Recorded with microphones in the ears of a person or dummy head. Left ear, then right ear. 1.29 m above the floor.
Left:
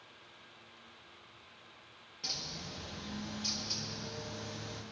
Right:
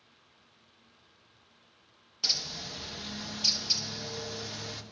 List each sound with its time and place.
2.2 s a bird: 40° right (ahead or behind), 0.9 m